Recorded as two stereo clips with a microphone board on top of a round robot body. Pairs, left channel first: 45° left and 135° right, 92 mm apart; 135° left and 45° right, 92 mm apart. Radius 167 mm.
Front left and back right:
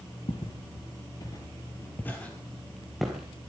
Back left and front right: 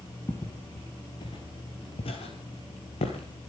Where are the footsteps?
70° left, 1.6 m; by 3.4 s 140° left, 1.8 m.